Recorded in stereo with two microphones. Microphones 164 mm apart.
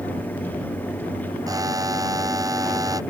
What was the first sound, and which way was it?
A buzzer, 20° right (ahead or behind).